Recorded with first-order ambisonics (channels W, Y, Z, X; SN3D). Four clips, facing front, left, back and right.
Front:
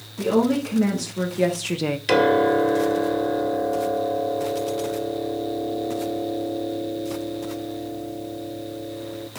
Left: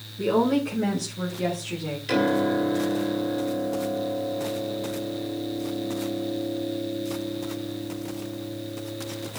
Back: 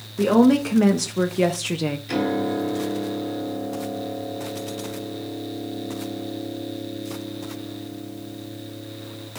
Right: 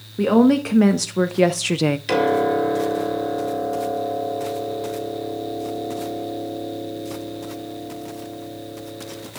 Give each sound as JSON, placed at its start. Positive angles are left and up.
{"t": 0.2, "sound": "a woman speaking", "azimuth_deg": -115, "distance_m": 1.6}
{"t": 2.1, "sound": "a piano", "azimuth_deg": -25, "distance_m": 1.9}